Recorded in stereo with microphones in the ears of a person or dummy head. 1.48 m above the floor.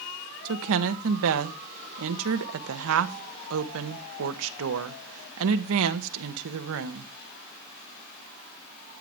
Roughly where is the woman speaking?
Right.